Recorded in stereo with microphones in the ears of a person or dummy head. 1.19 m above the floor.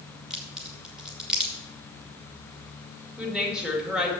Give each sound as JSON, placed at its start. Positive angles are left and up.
{"t": 0.3, "sound": "a crack", "side_deg": -5, "distance_m": 2.0}
{"t": 3.2, "sound": "a woman speaking", "side_deg": -5, "distance_m": 2.0}